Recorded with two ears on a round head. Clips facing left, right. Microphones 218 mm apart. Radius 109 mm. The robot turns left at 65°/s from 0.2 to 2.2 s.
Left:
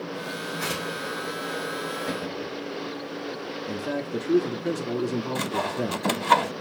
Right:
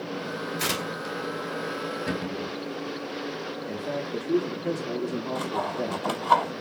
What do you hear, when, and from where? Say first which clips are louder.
0.6 s tearing paper: even; 50° right (ahead or behind), 2.5 m; by 1.1 s 65° right (ahead or behind), 2.5 m
2.1 s a cupboard door: right 1 dB; 45° right (ahead or behind), 3.5 m; by 2.6 s 35° right (ahead or behind), 3.5 m
3.7 s a man speaking: left 3 dB; 20° left (ahead or behind), 1.0 m
5.3 s sawing: left 1 dB; 30° left (ahead or behind), 0.8 m